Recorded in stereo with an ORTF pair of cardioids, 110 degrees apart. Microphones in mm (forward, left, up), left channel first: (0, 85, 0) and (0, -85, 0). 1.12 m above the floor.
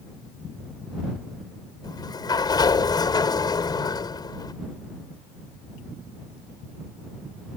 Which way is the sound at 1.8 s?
25° left.